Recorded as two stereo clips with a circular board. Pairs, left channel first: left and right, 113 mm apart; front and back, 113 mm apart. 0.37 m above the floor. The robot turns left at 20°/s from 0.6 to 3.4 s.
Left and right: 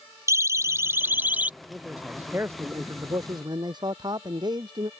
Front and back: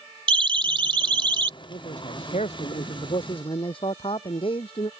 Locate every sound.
0.3 s a siren: 150° right; by 1.5 s 160° right
1.6 s a man speaking: 5° right; by 4.9 s 40° right